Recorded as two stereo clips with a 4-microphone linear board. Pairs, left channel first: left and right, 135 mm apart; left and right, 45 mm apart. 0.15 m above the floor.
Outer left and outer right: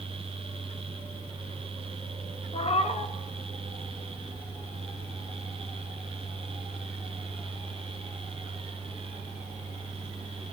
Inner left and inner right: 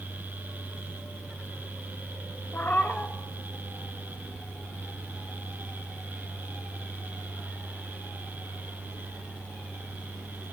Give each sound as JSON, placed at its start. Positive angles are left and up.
{"t": 2.5, "sound": "a cat meowing", "side_deg": 45, "distance_m": 0.5}